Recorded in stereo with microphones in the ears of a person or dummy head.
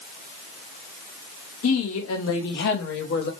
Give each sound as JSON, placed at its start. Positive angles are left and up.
{"t": 1.6, "sound": "a woman speaking", "side_deg": 85, "distance_m": 1.7}